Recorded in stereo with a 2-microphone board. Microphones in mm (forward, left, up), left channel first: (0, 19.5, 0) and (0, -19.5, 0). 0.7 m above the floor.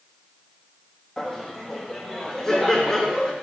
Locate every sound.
1.2 s laughter: 10° left (ahead or behind), 0.7 m